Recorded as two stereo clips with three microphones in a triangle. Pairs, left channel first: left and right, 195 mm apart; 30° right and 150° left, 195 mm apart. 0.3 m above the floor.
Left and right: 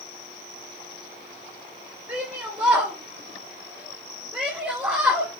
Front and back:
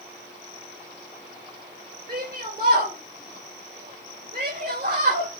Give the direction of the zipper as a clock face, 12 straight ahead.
I don't hear a zipper.